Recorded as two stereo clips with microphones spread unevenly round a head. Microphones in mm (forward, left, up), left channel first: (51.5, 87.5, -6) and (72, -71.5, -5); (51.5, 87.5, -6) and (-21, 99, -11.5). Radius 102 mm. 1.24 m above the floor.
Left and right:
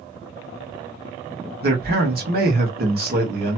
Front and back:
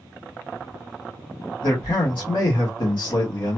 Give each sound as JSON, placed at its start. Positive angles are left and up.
{"t": 1.6, "sound": "a man speaking", "azimuth_deg": -60, "distance_m": 1.5}